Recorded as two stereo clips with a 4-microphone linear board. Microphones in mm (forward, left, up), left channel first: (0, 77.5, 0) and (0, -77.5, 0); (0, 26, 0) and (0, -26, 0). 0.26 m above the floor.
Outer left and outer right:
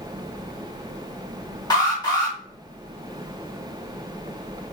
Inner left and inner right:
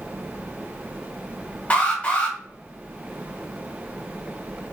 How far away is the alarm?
About 1.4 m.